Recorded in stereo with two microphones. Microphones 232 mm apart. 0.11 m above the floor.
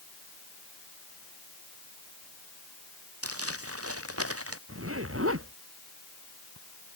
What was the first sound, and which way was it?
Crumpling, 85° right.